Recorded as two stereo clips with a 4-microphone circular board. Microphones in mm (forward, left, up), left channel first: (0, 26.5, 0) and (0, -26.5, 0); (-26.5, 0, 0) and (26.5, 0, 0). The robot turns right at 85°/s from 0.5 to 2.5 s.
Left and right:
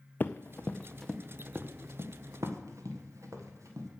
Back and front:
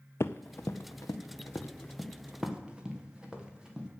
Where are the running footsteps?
145° left, 0.5 m; by 3.9 s 75° right, 3 m.